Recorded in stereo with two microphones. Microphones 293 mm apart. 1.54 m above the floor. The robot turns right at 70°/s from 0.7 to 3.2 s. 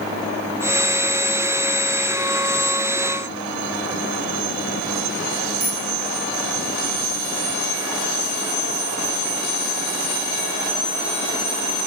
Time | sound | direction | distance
5.6 | a bicycle bell | 5° right (ahead or behind) | 7.5 m